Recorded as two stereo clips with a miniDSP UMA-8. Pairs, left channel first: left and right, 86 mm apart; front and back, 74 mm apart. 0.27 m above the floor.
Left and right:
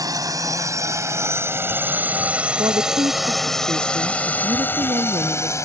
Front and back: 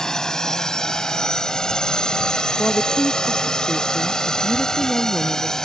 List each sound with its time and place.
0.0 s a drone: 80° right; by 5.7 s 75° left
2.6 s a woman speaking: 80° right